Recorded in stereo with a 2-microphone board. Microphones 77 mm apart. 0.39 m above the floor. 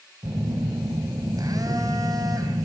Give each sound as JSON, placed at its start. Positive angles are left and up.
{"t": 0.2, "sound": "a phone buzzing", "side_deg": -50, "distance_m": 2.5}